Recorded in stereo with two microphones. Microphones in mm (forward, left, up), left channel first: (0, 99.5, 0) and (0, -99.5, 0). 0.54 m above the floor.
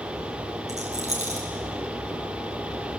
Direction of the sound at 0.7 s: 35° right (ahead or behind).